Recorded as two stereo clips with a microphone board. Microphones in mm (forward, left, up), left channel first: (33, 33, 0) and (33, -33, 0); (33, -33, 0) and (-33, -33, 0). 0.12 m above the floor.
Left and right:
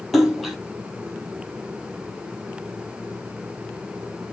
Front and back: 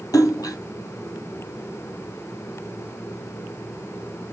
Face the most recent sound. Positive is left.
turn(degrees=0)